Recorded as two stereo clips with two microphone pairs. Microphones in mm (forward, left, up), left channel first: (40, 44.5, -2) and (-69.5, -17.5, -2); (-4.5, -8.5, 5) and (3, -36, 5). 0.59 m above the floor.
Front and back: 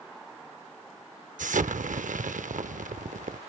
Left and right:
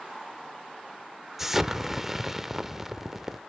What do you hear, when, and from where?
1.4 s an explosion: 150° right, 0.5 m